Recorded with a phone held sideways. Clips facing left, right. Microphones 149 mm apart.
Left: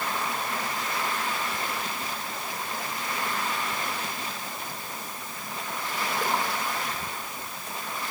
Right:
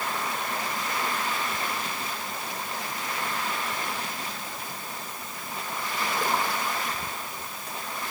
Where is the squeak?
No squeak in this recording.